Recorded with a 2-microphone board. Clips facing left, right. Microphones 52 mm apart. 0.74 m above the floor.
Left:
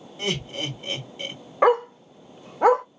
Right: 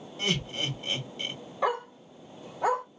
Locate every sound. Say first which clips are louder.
0.2 s laughter: left 2 dB; 15° left (ahead or behind), 2.5 m
1.6 s a dog barking: left 10 dB; 65° left (ahead or behind), 0.6 m